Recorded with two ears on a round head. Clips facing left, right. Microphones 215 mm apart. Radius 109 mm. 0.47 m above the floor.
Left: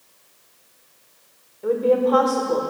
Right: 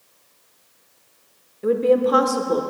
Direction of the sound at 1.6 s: 30° right (ahead or behind).